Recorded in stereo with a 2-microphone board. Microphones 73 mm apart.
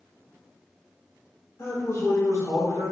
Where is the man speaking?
40° left (ahead or behind), 3 m; by 2.9 s 60° left (ahead or behind), 3 m.